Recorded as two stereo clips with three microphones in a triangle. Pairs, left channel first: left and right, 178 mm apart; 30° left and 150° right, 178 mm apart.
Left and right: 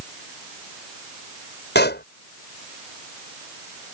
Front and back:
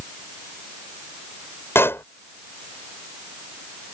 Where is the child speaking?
No child speaking in this recording.